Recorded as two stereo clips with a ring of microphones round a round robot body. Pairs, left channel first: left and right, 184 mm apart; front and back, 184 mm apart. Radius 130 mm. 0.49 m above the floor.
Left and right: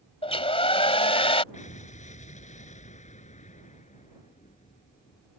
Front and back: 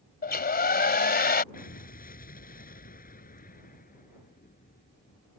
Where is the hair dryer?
30° left.